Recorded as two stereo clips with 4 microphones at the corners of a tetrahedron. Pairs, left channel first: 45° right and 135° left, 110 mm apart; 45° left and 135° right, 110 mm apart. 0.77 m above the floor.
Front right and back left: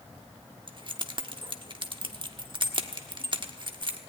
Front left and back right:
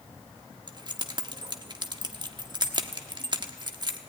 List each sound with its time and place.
0.7 s keys jangling: 175° left, 1.2 m